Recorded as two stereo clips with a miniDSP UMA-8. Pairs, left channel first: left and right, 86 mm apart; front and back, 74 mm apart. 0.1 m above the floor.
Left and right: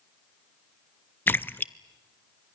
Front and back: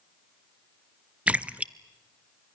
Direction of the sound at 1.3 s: 130° left.